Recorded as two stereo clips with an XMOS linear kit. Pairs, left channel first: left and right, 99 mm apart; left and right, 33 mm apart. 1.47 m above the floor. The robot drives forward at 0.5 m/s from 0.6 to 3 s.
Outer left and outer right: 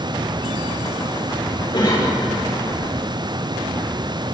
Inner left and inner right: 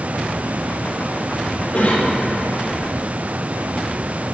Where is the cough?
50° left (ahead or behind), 3.5 m; by 2.1 s 55° left (ahead or behind), 3.5 m.